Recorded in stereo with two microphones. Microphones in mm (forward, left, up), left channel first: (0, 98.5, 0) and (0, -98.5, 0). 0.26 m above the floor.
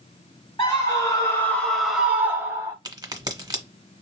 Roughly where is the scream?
Left.